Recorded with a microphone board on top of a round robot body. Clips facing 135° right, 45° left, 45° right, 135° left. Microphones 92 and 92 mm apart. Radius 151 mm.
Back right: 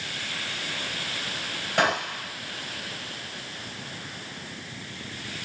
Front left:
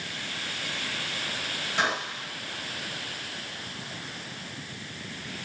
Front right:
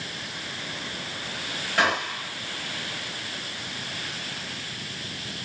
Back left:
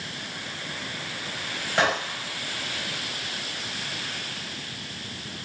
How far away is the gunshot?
About 3.5 m.